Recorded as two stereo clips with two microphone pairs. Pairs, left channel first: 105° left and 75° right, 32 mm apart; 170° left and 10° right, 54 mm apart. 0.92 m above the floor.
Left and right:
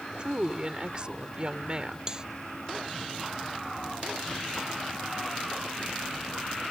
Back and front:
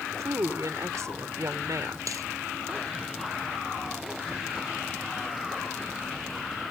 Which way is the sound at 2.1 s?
10° right.